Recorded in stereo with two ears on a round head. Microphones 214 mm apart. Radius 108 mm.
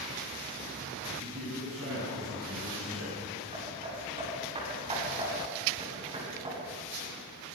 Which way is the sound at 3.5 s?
25° right (ahead or behind).